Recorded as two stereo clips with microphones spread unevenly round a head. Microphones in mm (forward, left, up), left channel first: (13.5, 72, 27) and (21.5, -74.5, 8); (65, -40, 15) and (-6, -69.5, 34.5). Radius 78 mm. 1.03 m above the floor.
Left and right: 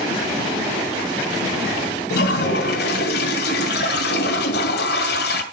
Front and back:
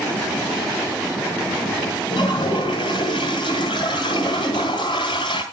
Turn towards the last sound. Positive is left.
turn(degrees=80)